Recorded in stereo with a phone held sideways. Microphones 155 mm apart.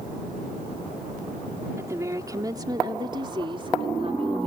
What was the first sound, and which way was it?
A woman speaking, 20° right (ahead or behind).